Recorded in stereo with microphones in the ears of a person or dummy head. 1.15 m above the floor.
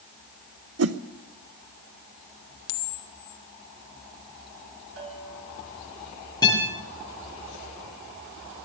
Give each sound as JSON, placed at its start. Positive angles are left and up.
{"t": 0.8, "sound": "a whoosh", "side_deg": -75, "distance_m": 0.8}
{"t": 2.7, "sound": "a camera shutter", "side_deg": 70, "distance_m": 0.9}
{"t": 5.0, "sound": "a bell", "side_deg": -70, "distance_m": 3.0}
{"t": 6.4, "sound": "a guitar", "side_deg": 25, "distance_m": 7.5}